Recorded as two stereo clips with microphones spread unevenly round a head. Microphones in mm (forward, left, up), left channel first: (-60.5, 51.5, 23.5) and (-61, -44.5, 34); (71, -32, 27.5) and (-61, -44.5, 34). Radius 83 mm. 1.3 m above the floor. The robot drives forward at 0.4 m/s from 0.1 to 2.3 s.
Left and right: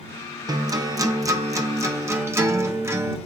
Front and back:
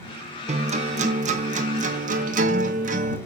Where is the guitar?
140° right, 1.4 m; by 3.2 s 155° right, 2 m.